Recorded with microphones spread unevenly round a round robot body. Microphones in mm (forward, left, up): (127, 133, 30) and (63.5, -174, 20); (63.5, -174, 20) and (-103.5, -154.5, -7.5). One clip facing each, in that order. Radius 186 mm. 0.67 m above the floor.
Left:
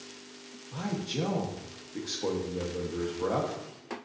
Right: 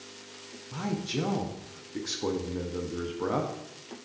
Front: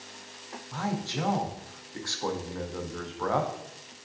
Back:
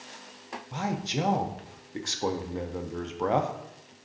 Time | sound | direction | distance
0.7 | a man speaking | 150° right | 0.5 m